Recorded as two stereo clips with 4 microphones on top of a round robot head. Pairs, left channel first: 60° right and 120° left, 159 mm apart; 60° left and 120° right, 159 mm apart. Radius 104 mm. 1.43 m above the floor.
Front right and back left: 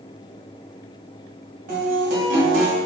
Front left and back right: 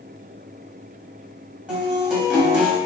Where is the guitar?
155° left, 1.1 m.